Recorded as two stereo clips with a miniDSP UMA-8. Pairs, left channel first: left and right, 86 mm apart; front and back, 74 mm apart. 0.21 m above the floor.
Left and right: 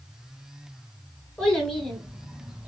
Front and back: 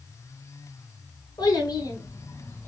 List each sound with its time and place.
1.4 s a child speaking: 10° left, 1.8 m; by 2.7 s 25° right, 1.0 m